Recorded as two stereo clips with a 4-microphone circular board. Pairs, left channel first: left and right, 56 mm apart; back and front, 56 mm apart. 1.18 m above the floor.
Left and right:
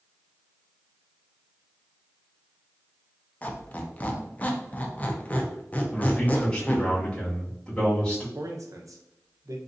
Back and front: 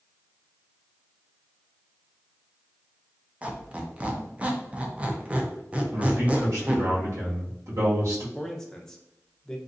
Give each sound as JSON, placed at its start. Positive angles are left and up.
{"t": 3.4, "sound": "a squeak", "azimuth_deg": 50, "distance_m": 0.6}
{"t": 5.9, "sound": "a man speaking", "azimuth_deg": 15, "distance_m": 1.7}
{"t": 8.3, "sound": "a man speaking", "azimuth_deg": -100, "distance_m": 0.7}